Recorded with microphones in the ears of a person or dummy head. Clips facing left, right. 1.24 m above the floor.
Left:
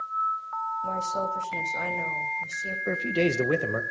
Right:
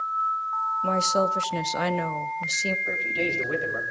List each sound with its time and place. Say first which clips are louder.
0.8 s a woman speaking: right 8 dB; 80° right, 1.1 m
2.9 s a man speaking: left 5 dB; 60° left (ahead or behind), 1.6 m